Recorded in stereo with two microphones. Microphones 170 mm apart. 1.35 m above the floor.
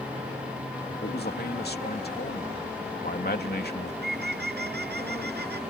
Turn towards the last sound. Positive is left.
turn(degrees=-85)